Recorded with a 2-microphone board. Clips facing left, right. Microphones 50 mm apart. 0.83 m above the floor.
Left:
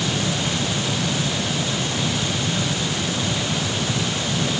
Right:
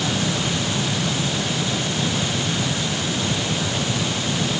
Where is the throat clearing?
No throat clearing in this recording.